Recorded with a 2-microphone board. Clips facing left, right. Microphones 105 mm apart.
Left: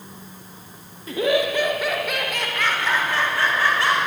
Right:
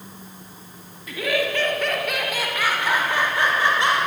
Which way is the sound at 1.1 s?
30° left (ahead or behind).